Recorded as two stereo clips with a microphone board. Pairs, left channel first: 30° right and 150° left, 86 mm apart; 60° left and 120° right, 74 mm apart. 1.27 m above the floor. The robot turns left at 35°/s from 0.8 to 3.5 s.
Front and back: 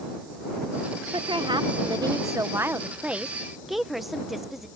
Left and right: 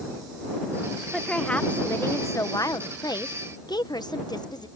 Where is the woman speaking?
145° left; by 4.7 s 65° left.